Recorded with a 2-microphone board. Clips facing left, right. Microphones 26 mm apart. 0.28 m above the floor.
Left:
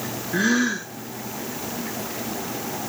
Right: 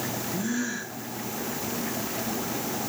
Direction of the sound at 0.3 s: 85° left.